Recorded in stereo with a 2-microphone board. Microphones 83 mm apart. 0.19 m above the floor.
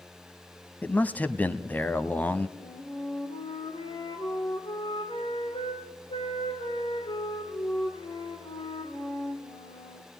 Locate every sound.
0.8 s a man speaking: 20° left (ahead or behind), 1.0 m
2.6 s a flute: 70° left (ahead or behind), 5 m